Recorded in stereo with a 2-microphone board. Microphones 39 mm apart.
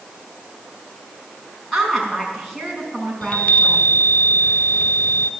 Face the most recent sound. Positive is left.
turn(degrees=45)  # may be behind; listen again after turning